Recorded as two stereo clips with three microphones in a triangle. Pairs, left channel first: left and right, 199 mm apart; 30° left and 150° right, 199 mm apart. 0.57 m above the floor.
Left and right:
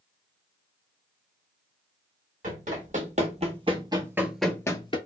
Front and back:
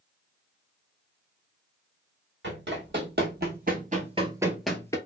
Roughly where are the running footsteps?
Behind right.